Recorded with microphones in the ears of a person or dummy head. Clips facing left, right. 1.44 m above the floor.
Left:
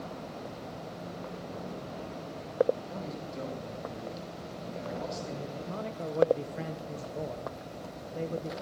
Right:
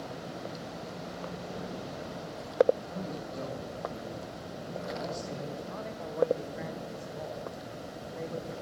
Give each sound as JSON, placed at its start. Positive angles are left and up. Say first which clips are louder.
{"t": 2.9, "sound": "a man speaking", "louder": "right 1 dB", "side_deg": 35, "distance_m": 9.5}
{"t": 5.5, "sound": "a man speaking", "louder": "left 2 dB", "side_deg": 40, "distance_m": 1.0}